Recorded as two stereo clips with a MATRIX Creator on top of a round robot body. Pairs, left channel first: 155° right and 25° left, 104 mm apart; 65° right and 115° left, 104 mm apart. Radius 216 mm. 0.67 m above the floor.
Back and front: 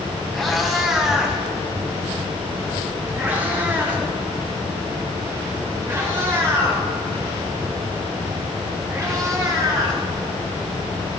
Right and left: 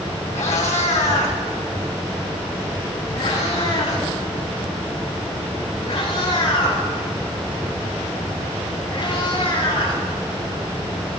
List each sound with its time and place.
0.3 s a cat meowing: 70° right, 1.9 m; by 10.0 s 35° right, 6 m